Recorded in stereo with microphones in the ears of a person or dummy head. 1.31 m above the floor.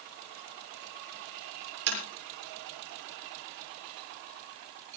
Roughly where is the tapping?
Right.